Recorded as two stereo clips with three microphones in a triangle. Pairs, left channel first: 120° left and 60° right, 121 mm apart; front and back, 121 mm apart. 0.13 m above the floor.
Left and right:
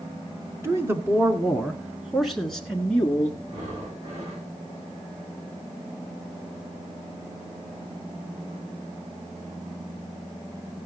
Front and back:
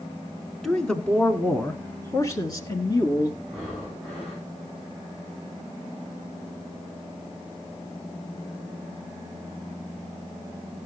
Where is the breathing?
85° right, 5.5 m.